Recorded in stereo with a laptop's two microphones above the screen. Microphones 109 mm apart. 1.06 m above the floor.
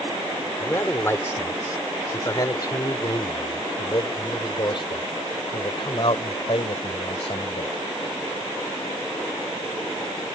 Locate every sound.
0.6 s a man speaking: 20° left (ahead or behind); by 7.7 s 60° left (ahead or behind)